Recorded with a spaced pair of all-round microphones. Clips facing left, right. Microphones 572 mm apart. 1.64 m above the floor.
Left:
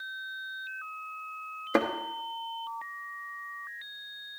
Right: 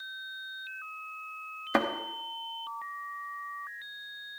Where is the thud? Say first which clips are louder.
Left 2 dB; 20° right (ahead or behind), 1.0 m.